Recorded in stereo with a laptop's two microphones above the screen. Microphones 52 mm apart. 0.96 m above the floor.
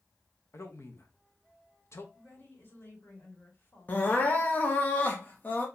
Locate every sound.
0.5 s a man speaking: 60° left (ahead or behind), 1.0 m
2.1 s a woman speaking: 45° left (ahead or behind), 2.5 m
3.9 s crying: 35° left (ahead or behind), 0.9 m